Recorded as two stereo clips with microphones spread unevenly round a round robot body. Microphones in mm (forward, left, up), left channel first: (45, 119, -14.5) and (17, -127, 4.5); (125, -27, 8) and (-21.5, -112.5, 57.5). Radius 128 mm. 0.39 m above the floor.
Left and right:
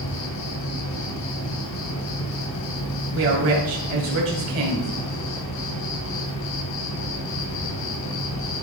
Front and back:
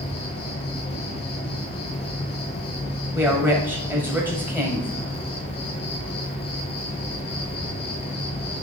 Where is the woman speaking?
65° right, 1.8 m.